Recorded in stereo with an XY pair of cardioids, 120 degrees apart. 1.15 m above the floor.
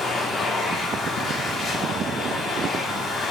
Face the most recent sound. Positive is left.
turn(degrees=40)